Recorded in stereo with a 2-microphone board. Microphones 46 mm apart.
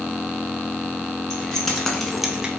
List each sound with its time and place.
1.3 s keys jangling: 15° left (ahead or behind), 1.9 m; by 2.5 s 20° right (ahead or behind), 0.8 m